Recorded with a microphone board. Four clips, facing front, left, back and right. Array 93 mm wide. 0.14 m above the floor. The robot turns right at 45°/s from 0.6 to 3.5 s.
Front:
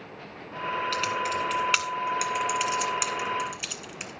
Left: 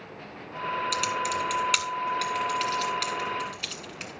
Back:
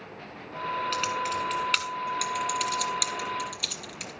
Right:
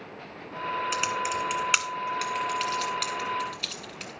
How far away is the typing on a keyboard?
About 1.7 m.